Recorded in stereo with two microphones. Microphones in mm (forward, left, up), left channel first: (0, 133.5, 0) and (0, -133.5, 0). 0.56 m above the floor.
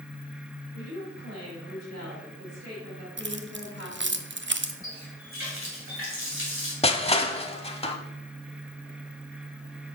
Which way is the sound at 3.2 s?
45° right (ahead or behind).